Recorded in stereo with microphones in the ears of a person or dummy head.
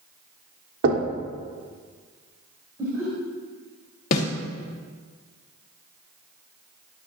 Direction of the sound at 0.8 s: 70° right (ahead or behind).